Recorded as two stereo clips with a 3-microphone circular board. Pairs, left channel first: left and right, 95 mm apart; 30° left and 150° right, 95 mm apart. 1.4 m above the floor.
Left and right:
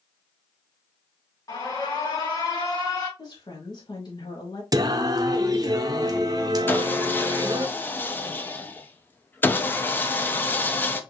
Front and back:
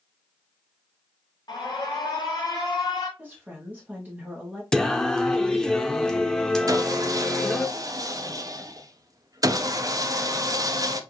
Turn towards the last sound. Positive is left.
turn(degrees=160)